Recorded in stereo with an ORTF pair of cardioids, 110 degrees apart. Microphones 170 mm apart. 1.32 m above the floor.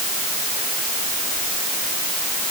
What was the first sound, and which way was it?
Only background noise.